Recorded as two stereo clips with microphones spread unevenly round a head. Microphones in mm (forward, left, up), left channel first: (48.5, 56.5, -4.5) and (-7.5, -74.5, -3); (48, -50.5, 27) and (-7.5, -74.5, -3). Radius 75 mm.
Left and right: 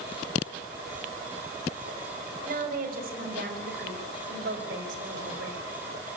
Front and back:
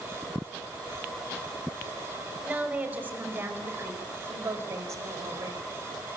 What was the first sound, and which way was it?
A woman speaking, 90° right.